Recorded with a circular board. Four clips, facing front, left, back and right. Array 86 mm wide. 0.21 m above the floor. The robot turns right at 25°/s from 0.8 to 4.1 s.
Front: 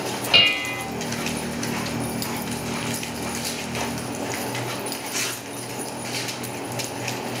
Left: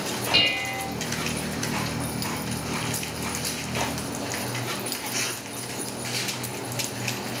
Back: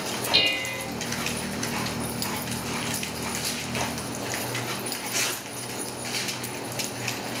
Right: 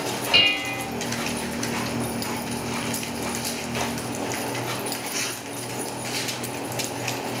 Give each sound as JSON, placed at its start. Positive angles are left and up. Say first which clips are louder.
{"t": 0.3, "sound": "dishes clattering", "louder": "right 2 dB, front 7 dB", "azimuth_deg": -20, "distance_m": 1.6}